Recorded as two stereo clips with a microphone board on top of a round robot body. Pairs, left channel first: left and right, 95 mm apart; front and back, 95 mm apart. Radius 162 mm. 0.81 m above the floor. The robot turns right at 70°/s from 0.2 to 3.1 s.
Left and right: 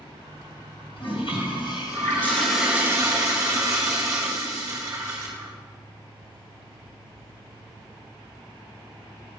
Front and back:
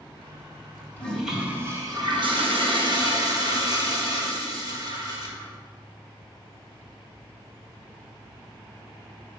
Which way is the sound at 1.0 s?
70° left.